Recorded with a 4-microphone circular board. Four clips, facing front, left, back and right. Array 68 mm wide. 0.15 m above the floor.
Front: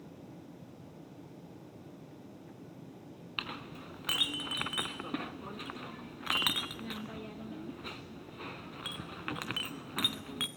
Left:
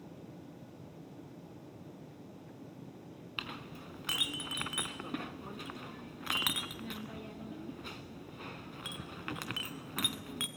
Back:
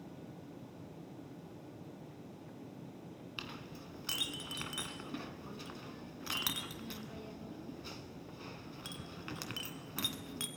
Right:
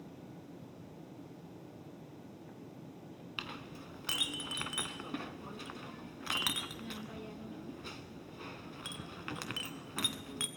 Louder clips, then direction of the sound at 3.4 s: Left 1 dB, front 7 dB; 10° left.